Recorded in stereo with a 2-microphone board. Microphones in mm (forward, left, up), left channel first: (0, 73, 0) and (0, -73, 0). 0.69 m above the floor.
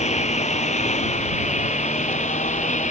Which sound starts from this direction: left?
A lawn mower, at 0.0 s.